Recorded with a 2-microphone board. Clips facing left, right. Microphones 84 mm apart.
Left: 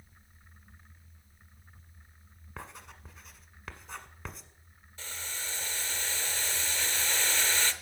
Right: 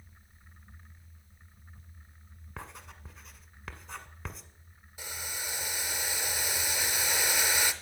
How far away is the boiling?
About 0.8 m.